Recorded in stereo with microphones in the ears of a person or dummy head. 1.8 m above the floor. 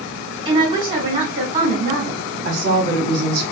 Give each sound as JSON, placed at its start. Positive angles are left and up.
{"t": 0.5, "sound": "a woman speaking", "side_deg": -35, "distance_m": 1.2}
{"t": 2.5, "sound": "a woman speaking", "side_deg": -60, "distance_m": 1.1}